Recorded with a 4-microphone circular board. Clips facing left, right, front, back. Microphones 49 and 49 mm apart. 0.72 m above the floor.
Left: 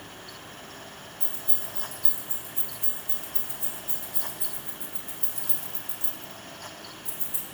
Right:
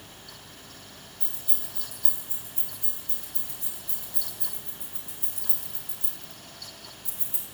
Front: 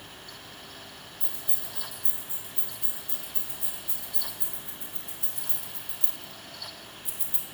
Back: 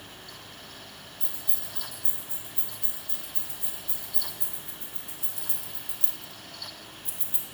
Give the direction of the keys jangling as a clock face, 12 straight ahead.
11 o'clock.